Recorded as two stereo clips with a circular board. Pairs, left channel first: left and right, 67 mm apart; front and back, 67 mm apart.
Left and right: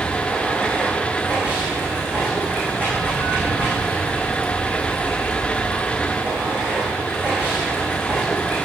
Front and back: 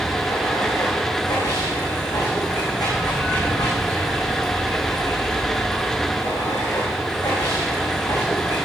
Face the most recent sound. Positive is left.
turn(degrees=-25)